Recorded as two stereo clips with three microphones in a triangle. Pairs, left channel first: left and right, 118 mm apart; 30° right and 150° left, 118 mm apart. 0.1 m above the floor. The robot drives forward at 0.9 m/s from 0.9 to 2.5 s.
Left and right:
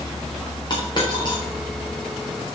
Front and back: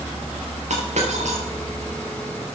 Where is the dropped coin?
140° left, 5.5 m; by 1.4 s 145° left, 6 m.